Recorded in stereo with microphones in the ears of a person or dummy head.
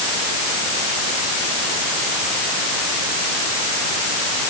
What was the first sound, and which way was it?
Only background noise.